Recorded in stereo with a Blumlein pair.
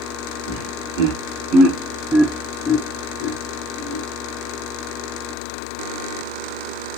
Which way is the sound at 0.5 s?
60° right.